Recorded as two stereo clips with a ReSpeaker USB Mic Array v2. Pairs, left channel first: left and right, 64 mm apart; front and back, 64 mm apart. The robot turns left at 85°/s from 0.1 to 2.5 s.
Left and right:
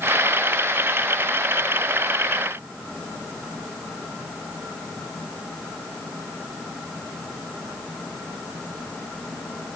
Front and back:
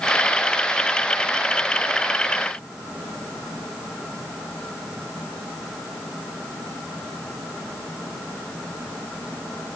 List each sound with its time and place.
Only background noise.